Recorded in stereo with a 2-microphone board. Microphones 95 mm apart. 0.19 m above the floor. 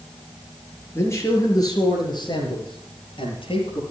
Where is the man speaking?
25° left (ahead or behind), 3.5 m; by 3.8 s 70° left (ahead or behind), 5 m.